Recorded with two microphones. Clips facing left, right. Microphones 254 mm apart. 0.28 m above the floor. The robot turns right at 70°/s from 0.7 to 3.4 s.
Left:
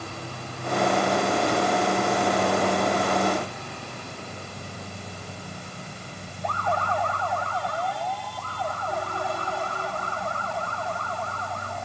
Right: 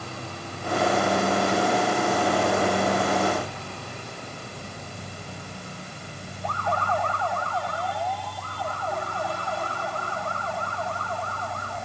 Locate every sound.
Only background noise.